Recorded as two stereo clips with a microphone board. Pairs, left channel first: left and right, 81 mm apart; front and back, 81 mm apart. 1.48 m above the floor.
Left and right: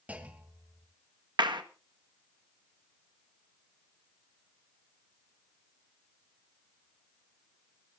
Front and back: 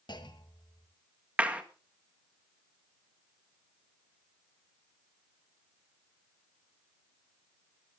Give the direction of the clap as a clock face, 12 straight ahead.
4 o'clock.